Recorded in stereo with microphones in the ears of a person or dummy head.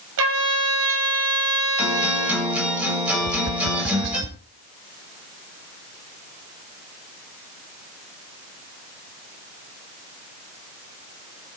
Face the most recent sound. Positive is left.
turn(degrees=-65)  # may be behind; listen again after turning